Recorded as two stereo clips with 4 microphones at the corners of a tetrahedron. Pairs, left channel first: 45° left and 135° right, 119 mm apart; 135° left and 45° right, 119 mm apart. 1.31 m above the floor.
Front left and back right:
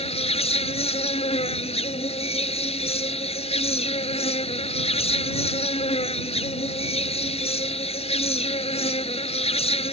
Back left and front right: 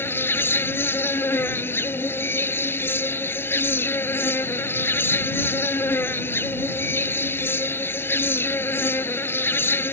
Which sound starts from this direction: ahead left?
An insect, at 0.0 s.